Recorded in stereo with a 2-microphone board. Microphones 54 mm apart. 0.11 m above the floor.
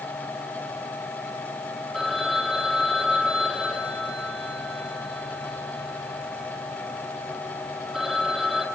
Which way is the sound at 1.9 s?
Centre (ahead or behind).